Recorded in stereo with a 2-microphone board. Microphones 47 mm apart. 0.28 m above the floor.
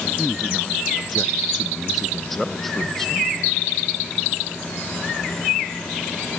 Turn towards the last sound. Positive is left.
turn(degrees=10)  # may be behind; listen again after turning